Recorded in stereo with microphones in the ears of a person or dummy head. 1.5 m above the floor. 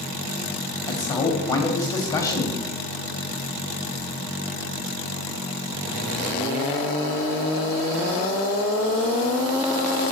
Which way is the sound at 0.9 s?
25° left (ahead or behind).